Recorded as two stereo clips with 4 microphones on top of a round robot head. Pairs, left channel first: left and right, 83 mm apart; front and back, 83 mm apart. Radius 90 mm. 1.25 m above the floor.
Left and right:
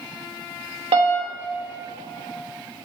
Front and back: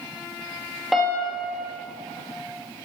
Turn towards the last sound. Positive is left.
turn(degrees=-90)